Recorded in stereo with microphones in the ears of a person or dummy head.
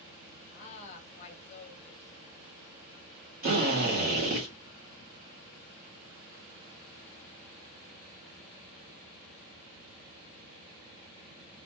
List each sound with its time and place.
0.5 s a woman speaking: 40° left (ahead or behind), 0.7 m
3.4 s a drill: 45° right (ahead or behind), 1.4 m